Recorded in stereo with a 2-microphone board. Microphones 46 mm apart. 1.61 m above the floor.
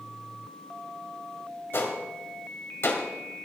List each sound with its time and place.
1.7 s a gunshot: 60° left (ahead or behind), 2.5 m